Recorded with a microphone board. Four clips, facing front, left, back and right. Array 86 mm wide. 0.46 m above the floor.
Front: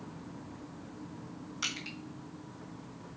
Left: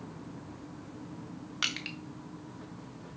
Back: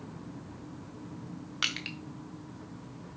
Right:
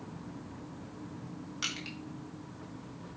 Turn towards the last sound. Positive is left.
turn(degrees=145)